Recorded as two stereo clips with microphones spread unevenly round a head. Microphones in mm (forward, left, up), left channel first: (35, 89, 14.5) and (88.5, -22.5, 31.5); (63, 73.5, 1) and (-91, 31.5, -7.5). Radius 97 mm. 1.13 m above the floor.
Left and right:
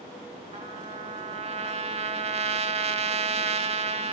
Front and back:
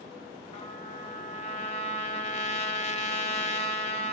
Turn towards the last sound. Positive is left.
turn(degrees=-35)